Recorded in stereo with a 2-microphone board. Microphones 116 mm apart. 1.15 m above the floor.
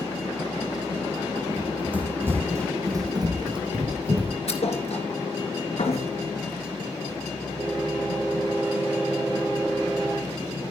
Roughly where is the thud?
Left.